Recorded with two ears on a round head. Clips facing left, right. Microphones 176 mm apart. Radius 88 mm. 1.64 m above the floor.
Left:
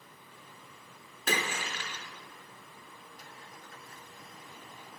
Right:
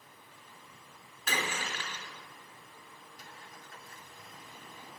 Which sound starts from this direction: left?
A splash, at 1.3 s.